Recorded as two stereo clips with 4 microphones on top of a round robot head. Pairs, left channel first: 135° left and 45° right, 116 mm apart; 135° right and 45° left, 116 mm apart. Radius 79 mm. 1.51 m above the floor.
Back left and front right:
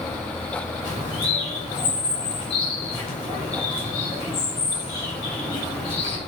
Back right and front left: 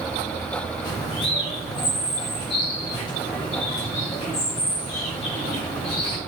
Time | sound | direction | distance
0.8 | a bird | straight behind | 3 m